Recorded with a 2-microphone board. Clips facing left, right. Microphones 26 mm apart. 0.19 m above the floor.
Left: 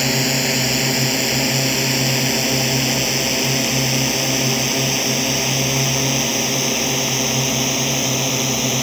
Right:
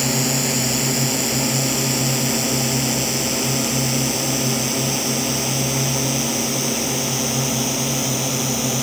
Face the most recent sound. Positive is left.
turn(degrees=30)  # may be behind; listen again after turning